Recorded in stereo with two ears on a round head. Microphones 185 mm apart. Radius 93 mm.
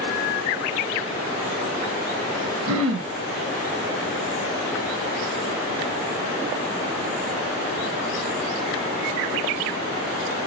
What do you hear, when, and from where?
2.7 s throat clearing: 70° right (ahead or behind), 0.5 m